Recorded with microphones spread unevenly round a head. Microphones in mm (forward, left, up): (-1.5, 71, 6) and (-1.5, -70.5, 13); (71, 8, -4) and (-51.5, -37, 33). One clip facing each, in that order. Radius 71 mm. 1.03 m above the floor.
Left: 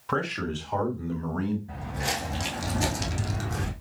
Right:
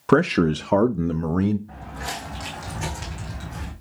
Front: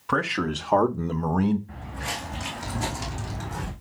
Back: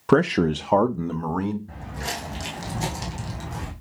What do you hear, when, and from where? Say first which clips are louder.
0.1 s a man speaking: right 12 dB, back 8 dB; 120° right, 0.5 m; by 1.6 s 50° right, 0.9 m
1.7 s footsteps: left 1 dB, back 2 dB; 165° left, 3.5 m; by 3.7 s 115° left, 3 m